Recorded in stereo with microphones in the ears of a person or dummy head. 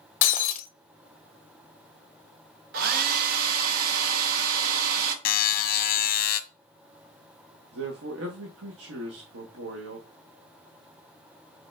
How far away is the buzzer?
About 0.7 m.